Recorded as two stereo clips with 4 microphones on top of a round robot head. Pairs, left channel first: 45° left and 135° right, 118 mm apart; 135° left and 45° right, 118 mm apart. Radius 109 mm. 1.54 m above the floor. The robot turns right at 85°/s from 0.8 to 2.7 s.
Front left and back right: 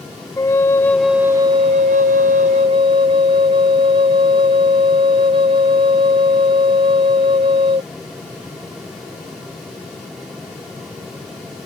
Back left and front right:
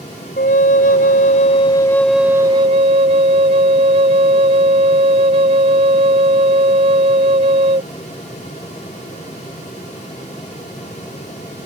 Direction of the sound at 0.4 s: 115° left.